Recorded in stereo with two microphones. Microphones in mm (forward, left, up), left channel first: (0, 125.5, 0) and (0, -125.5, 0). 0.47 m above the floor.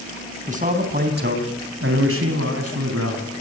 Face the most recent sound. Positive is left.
turn(degrees=-75)  # may be behind; listen again after turning